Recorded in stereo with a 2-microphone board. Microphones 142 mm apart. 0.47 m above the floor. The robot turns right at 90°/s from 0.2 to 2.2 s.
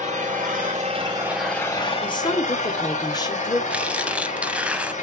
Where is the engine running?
115° right, 2.5 m; by 5.0 s 65° left, 2.5 m.